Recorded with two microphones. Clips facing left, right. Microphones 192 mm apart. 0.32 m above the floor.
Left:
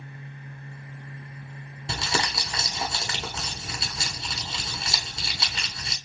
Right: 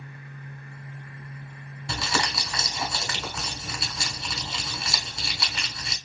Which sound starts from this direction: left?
Crumpling, at 1.9 s.